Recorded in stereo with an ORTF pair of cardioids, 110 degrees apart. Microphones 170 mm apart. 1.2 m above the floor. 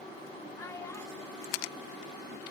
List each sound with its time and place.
0.6 s a child speaking: 15° left, 0.8 m